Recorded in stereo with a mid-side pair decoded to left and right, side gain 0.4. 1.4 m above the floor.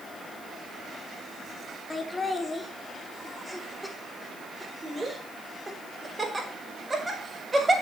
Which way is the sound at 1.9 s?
35° left.